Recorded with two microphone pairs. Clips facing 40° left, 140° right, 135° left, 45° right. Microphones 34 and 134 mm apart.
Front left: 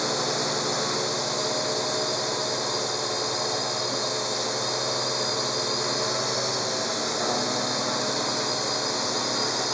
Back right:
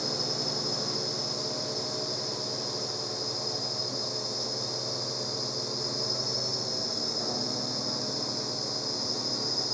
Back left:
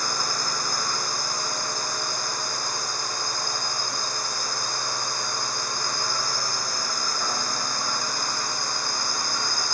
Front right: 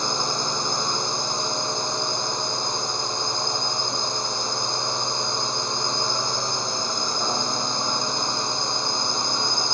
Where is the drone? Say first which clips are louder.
Front left 7 dB, front right 3 dB; 25° left.